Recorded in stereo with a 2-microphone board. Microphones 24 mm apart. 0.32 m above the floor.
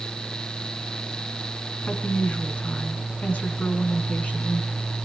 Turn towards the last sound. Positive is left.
turn(degrees=70)  # may be behind; listen again after turning